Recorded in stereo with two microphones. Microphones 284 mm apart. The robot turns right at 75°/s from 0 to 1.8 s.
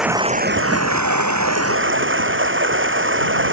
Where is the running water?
Straight behind; by 3.5 s 45° right.